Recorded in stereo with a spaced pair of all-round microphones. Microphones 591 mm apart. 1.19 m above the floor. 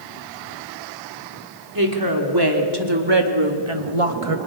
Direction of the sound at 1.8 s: 35° right (ahead or behind).